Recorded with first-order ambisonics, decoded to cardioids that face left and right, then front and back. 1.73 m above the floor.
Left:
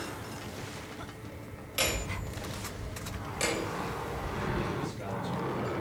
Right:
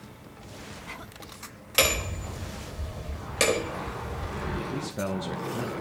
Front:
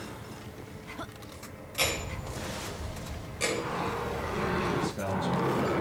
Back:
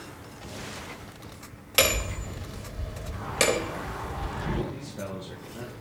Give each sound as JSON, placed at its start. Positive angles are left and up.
{"t": 1.8, "sound": "hammering", "azimuth_deg": -145, "distance_m": 4.0}
{"t": 4.7, "sound": "a man speaking", "azimuth_deg": -80, "distance_m": 2.5}